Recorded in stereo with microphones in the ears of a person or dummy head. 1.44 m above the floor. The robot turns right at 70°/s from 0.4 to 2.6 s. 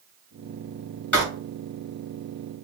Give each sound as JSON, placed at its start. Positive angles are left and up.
{"t": 1.1, "sound": "writing", "side_deg": 5, "distance_m": 2.0}